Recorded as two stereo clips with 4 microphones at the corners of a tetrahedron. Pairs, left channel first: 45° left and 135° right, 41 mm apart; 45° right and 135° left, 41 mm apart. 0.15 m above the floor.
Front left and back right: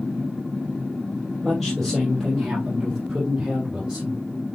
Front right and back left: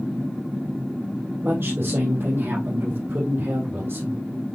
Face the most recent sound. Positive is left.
turn(degrees=155)